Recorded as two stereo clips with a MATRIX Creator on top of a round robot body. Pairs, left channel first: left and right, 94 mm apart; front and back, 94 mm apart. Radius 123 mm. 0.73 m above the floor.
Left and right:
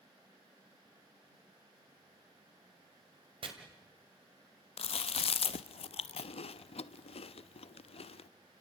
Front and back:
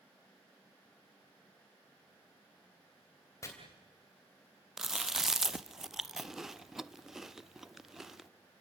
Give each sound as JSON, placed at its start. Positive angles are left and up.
{"t": 3.4, "sound": "chopping", "azimuth_deg": -60, "distance_m": 2.5}
{"t": 4.8, "sound": "chewing", "azimuth_deg": 95, "distance_m": 0.5}